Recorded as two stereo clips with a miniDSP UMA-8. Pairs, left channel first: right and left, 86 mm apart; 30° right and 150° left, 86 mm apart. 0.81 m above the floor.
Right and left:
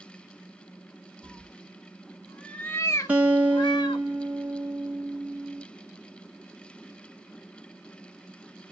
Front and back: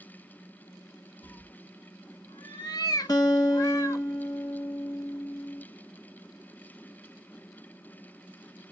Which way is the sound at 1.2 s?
20° left.